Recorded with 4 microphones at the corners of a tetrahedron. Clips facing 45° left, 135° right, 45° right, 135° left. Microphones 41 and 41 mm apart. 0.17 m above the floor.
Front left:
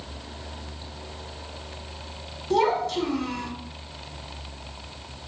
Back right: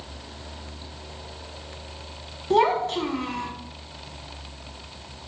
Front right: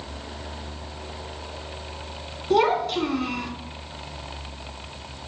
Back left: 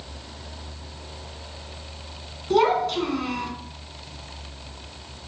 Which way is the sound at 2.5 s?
130° right.